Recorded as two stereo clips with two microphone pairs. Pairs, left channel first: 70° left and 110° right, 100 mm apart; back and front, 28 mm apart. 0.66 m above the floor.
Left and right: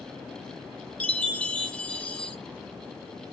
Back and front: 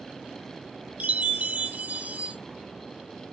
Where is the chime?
Straight ahead, 0.7 m.